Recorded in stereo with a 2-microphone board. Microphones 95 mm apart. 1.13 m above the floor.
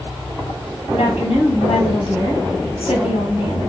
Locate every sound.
0.9 s a woman speaking: 75° left (ahead or behind), 1.8 m